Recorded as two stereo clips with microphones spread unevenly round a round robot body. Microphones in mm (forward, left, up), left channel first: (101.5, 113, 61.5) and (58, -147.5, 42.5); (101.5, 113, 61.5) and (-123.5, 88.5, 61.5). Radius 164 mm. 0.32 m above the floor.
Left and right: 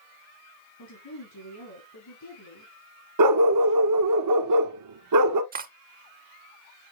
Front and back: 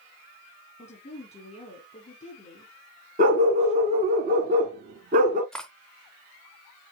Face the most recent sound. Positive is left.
turn(degrees=-80)